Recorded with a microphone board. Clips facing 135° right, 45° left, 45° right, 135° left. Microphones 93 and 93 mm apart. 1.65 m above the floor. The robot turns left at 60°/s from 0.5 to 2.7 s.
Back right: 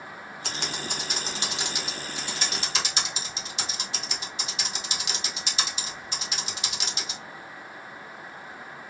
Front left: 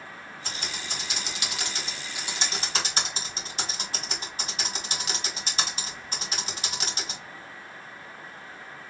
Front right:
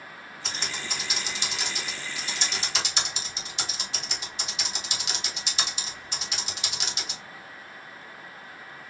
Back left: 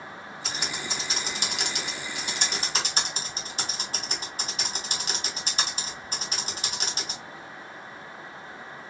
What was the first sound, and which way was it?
Typing on a keyboard, 135° right.